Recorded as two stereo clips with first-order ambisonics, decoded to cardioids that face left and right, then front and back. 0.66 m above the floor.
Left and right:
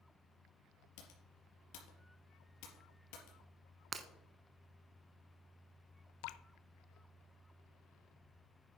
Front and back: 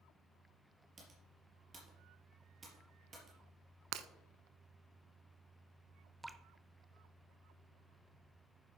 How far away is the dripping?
About 0.6 m.